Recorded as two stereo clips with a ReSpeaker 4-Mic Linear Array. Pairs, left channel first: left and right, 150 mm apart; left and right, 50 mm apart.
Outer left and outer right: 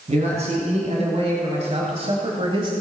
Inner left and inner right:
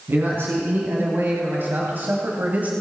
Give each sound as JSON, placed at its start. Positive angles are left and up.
{"t": 0.1, "sound": "a man speaking", "side_deg": -50, "distance_m": 3.0}